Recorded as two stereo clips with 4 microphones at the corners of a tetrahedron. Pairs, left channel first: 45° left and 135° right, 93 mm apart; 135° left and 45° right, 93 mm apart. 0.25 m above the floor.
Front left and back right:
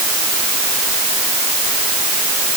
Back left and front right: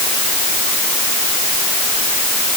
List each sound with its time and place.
Only background noise.